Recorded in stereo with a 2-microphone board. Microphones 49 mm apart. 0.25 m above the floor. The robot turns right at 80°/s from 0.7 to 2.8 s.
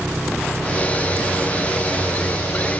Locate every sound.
0.0 s an engine running: 5° right; by 2.8 s 160° left